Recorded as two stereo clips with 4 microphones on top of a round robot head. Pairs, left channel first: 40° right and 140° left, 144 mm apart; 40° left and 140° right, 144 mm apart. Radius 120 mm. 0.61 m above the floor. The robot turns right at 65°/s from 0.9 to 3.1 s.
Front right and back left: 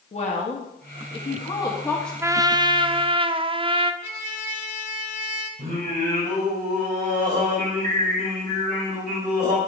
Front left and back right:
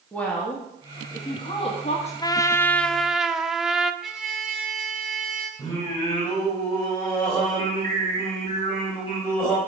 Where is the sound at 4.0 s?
50° right, 1.5 m.